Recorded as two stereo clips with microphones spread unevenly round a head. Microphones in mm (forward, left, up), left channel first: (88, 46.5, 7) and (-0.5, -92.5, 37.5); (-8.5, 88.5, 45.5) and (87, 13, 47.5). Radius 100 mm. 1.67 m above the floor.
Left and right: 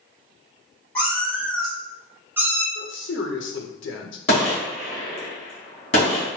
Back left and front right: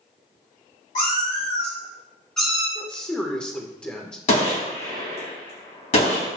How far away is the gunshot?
About 2 m.